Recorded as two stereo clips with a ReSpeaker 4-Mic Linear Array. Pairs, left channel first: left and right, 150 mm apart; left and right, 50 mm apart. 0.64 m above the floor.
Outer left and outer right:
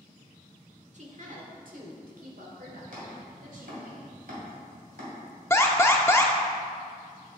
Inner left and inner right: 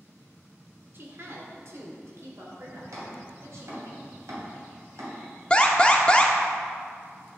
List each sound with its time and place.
0.9 s a woman speaking: 50° right (ahead or behind), 1.4 m; by 3.9 s 70° right (ahead or behind), 3 m
2.9 s chopping: 75° right (ahead or behind), 2.5 m
5.5 s an alarm: 15° left (ahead or behind), 0.8 m